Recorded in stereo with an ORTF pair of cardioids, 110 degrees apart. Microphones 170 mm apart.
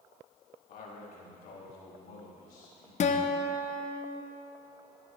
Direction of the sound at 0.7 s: 60° left.